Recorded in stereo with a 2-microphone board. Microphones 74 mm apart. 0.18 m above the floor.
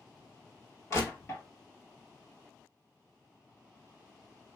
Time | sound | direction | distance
0.9 | crushing | 40° left (ahead or behind) | 1.2 m